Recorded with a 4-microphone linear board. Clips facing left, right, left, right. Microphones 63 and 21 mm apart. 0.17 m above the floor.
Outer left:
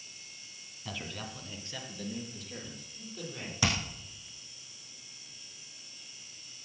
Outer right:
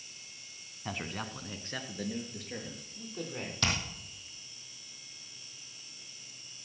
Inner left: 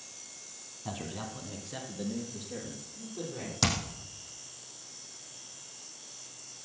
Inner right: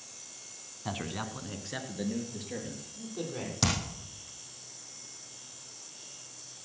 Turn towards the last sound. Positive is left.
turn(degrees=10)  # may be behind; listen again after turning